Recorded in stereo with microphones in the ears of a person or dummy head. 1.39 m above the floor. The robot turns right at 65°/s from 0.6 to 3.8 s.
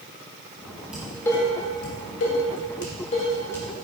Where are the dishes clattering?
5° right (ahead or behind), 2.5 m; by 3.7 s 5° left (ahead or behind), 2.5 m.